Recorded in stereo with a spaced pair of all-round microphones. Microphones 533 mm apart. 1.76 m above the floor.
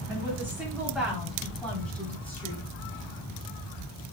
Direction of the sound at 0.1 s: 5° right (ahead or behind).